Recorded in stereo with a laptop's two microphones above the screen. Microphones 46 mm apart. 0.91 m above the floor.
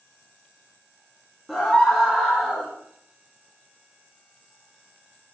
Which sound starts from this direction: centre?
A scream, at 1.5 s.